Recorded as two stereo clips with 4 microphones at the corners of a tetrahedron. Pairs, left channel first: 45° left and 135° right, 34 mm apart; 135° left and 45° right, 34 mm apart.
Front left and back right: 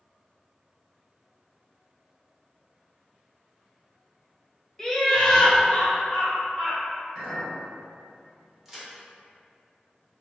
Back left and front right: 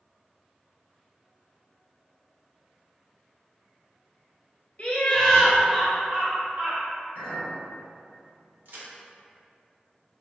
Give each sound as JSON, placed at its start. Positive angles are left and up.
{"t": 4.8, "sound": "laughter", "azimuth_deg": 115, "distance_m": 0.7}
{"t": 7.2, "sound": "a clink", "azimuth_deg": -45, "distance_m": 1.5}
{"t": 8.7, "sound": "a crack", "azimuth_deg": -60, "distance_m": 0.7}